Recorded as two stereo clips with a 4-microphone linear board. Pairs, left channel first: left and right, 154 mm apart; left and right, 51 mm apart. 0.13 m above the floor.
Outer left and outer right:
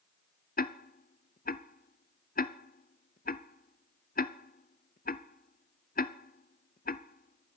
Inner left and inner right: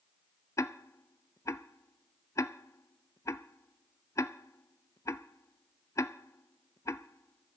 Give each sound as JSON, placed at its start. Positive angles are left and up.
{"t": 0.6, "sound": "ticking", "side_deg": 70, "distance_m": 0.6}